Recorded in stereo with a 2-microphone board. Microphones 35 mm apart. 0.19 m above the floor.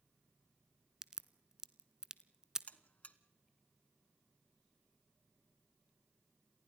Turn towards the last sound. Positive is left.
turn(degrees=40)  # may be behind; listen again after turning